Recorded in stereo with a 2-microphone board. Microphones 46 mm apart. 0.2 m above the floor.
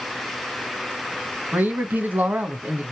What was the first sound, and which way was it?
A man speaking, 40° right (ahead or behind).